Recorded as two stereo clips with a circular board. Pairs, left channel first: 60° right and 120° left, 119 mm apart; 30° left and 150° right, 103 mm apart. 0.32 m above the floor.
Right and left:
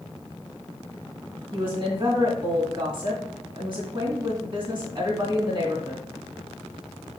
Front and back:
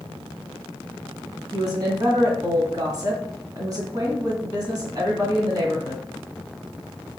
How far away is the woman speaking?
About 2 m.